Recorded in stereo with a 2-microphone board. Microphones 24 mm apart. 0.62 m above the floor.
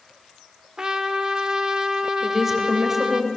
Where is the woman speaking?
15° right (ahead or behind), 3.5 m.